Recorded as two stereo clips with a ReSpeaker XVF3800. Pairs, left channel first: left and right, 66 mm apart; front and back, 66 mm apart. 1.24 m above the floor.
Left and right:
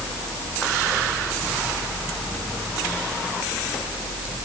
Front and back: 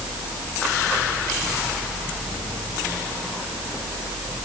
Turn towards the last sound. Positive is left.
No sound to turn to.